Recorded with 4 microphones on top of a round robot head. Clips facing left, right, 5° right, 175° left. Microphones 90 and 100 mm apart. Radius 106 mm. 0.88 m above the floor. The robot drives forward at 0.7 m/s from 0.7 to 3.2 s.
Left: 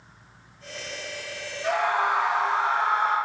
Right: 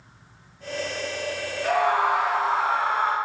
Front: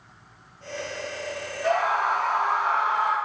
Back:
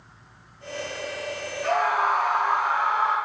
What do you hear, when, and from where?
1.6 s a scream: 70° right, 3 m; by 3.2 s 95° right, 2.5 m